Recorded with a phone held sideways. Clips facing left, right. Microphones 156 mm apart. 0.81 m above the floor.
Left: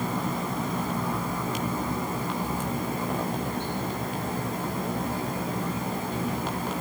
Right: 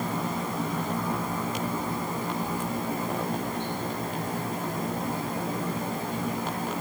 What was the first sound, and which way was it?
Only background noise.